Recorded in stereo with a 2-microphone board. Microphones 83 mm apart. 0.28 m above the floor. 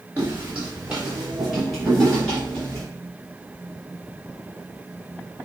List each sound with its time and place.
0.2 s footsteps: 25° right (ahead or behind), 1.9 m; by 2.8 s 10° left (ahead or behind), 4.5 m